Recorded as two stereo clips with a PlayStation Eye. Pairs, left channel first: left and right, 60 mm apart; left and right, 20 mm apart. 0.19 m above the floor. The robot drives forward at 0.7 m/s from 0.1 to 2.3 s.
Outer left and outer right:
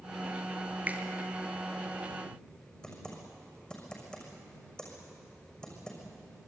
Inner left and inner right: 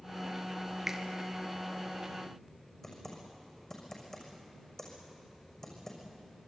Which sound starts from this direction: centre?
Typing on a keyboard, at 2.8 s.